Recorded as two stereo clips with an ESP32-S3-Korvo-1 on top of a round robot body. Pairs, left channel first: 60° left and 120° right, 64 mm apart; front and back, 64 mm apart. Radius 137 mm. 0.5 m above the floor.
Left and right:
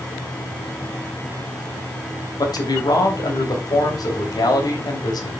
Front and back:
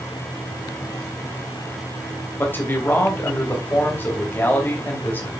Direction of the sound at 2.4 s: 60° left.